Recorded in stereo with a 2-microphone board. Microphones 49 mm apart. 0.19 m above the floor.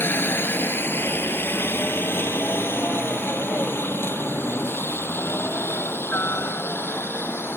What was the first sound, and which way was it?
A helicopter, 45° left (ahead or behind).